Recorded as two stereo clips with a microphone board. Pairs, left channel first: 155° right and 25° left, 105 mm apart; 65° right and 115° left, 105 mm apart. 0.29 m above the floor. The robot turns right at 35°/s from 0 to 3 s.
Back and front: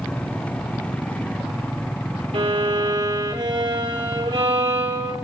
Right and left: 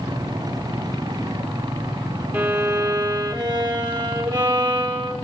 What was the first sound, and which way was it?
A violin, 45° left.